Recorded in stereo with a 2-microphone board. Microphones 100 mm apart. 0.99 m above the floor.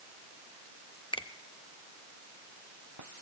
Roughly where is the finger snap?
Left.